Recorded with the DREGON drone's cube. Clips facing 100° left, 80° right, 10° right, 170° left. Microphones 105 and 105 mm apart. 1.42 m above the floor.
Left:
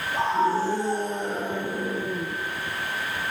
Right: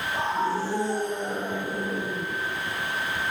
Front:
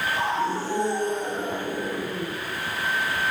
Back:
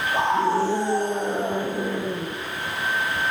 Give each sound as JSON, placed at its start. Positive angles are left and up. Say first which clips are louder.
{"t": 0.1, "sound": "a scream", "louder": "left 4 dB, back 7 dB", "azimuth_deg": 175, "distance_m": 4.0}